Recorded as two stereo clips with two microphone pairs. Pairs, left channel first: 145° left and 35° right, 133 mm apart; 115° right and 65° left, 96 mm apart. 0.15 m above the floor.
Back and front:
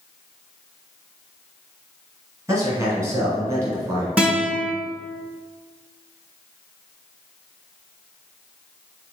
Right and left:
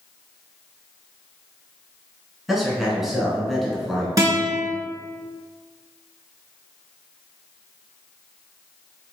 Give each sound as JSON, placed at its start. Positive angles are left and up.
{"t": 2.5, "sound": "a man speaking", "azimuth_deg": -20, "distance_m": 1.1}
{"t": 4.2, "sound": "a guitar", "azimuth_deg": 45, "distance_m": 1.1}